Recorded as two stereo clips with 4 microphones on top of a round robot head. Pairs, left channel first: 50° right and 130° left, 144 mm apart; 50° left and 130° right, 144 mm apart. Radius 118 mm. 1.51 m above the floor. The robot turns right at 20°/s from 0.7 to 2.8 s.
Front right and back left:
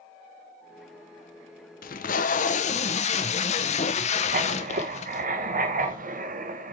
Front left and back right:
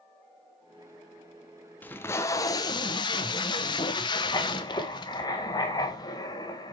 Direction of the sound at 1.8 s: 30° right.